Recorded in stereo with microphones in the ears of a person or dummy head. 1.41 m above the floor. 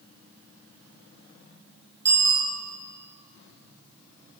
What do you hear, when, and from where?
2.0 s a bicycle bell: 15° right (ahead or behind), 5.5 m